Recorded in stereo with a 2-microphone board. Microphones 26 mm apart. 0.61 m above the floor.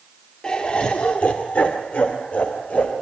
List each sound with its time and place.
0.4 s laughter: 35° left (ahead or behind), 1.7 m; by 2.9 s 60° left (ahead or behind), 3 m